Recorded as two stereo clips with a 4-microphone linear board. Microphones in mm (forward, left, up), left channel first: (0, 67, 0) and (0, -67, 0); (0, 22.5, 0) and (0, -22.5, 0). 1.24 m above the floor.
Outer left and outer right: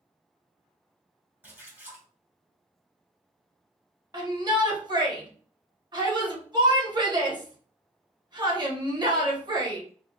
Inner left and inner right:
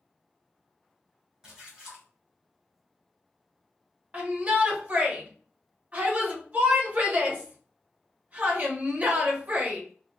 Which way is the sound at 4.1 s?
30° right (ahead or behind).